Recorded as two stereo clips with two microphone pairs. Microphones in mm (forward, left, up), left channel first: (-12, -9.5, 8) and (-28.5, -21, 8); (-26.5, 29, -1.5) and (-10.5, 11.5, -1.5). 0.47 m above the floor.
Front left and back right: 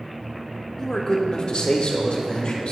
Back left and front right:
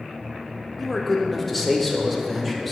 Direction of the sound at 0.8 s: 75° left.